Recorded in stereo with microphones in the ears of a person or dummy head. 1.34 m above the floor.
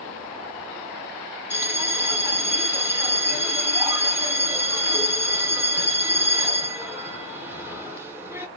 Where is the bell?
10° right (ahead or behind), 0.9 m.